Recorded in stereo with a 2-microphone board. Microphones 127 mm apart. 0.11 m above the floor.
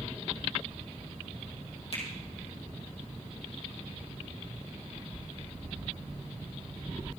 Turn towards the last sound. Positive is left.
turn(degrees=55)  # may be behind; listen again after turning